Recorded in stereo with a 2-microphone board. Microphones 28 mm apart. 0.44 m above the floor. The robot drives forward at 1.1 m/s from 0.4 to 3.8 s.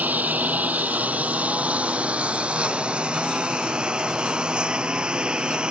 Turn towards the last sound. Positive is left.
turn(degrees=-35)  # may be behind; listen again after turning